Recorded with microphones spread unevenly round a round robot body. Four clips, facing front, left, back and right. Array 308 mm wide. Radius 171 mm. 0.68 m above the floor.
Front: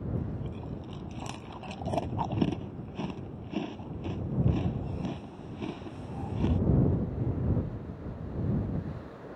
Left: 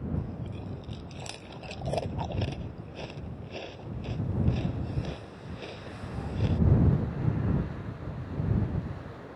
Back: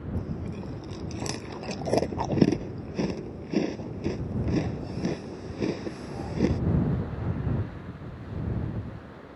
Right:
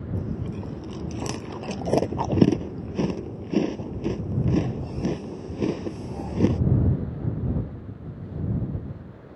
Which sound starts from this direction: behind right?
Chewing, at 0.1 s.